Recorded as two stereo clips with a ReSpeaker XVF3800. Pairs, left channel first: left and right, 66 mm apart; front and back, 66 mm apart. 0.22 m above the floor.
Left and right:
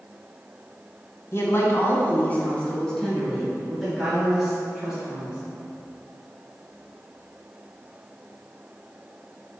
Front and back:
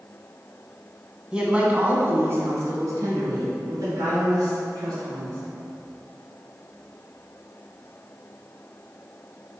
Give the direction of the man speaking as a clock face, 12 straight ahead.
8 o'clock.